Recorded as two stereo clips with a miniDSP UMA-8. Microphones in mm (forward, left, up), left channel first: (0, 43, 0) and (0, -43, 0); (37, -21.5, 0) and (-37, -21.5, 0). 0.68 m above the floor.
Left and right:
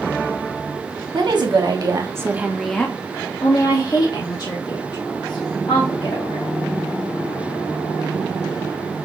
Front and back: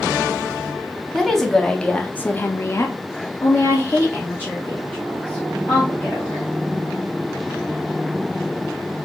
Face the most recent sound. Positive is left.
turn(degrees=65)